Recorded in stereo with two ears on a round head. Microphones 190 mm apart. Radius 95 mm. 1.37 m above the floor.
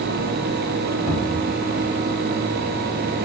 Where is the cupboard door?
Centre (ahead or behind), 3.5 m.